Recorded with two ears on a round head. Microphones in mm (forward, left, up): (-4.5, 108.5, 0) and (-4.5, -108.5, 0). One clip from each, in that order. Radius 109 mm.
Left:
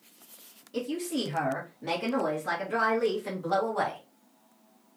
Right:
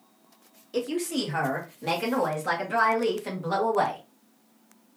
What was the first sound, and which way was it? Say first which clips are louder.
A woman speaking: right 4 dB; 45° right (ahead or behind).